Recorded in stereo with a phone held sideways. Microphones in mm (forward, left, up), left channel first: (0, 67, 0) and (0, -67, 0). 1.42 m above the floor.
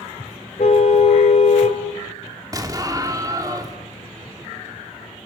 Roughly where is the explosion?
Right.